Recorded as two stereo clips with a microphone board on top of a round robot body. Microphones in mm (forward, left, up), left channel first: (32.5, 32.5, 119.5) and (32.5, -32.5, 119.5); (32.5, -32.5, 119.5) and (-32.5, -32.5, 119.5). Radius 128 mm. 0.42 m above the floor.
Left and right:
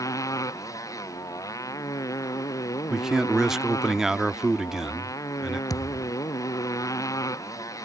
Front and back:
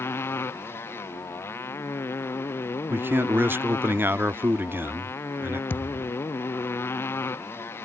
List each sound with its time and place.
0.0 s a motorcycle: 55° left
2.9 s a man speaking: 165° right
5.7 s a thud: 60° left